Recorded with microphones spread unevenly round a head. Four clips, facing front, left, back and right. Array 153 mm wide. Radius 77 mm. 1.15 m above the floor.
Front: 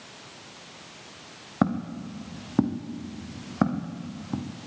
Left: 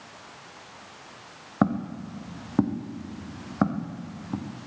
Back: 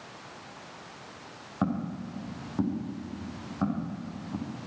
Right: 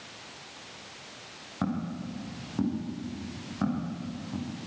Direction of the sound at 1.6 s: 45° left.